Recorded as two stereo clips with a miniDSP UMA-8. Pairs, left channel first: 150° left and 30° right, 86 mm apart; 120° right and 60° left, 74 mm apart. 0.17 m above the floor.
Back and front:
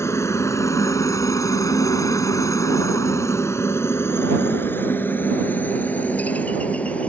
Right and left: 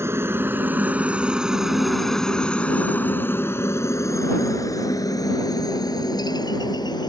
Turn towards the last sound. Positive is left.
turn(degrees=-135)